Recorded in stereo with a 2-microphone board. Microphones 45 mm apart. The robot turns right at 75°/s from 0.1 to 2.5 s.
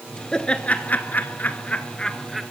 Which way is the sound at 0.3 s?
15° left (ahead or behind).